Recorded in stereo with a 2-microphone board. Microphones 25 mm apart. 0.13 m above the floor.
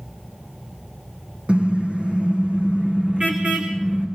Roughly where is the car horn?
Right.